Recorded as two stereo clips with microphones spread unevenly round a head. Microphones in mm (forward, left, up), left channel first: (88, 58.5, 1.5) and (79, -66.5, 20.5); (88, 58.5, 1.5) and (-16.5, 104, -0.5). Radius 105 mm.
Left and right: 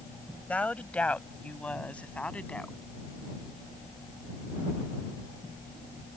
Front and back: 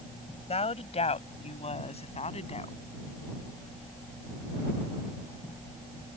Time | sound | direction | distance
0.5 | a woman speaking | 5° left | ?